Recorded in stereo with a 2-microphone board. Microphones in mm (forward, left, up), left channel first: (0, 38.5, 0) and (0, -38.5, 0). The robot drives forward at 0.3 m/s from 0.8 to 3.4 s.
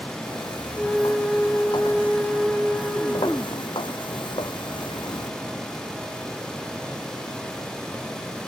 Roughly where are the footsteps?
Left.